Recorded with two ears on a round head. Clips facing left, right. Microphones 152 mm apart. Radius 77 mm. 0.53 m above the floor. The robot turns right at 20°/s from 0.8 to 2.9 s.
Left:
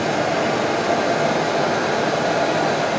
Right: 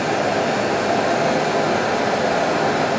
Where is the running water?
95° left, 1.8 m; by 3.0 s 140° left, 1.8 m.